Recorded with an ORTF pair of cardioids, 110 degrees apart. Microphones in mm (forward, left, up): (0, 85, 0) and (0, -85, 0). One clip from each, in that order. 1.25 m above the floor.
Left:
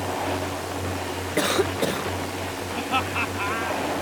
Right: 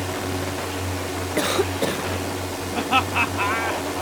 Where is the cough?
Straight ahead.